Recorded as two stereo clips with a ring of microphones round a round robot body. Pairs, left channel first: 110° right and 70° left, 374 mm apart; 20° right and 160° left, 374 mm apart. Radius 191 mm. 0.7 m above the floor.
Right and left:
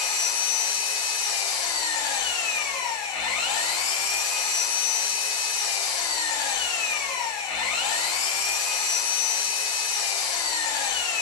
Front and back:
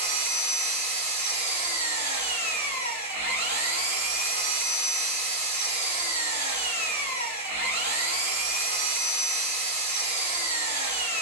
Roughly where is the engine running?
Behind right.